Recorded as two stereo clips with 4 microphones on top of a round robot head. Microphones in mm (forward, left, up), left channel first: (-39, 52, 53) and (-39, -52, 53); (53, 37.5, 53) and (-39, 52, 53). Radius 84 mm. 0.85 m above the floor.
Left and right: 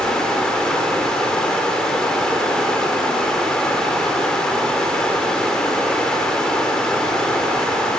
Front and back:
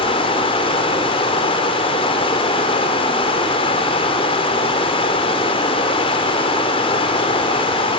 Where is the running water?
5° left, 2.5 m.